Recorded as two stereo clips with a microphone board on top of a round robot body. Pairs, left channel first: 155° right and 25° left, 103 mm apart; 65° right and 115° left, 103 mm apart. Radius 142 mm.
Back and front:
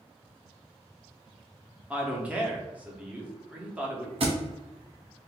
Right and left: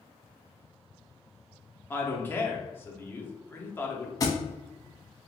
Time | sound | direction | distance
1.9 | a man speaking | 35° right | 1.0 m
4.2 | a thud | 10° right | 0.5 m